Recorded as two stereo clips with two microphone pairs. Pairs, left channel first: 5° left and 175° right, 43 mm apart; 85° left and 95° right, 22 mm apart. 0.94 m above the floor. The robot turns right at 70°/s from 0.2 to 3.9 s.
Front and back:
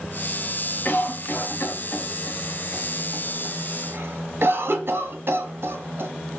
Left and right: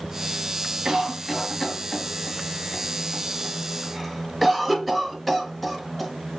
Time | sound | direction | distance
0.8 | a cough | 40° right | 1.1 m